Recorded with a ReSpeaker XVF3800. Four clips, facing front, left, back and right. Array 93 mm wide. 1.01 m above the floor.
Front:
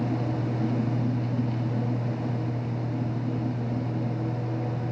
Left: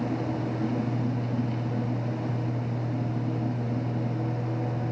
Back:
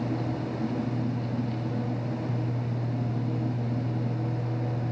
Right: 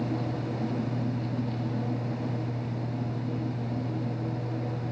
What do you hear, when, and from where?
Only background noise.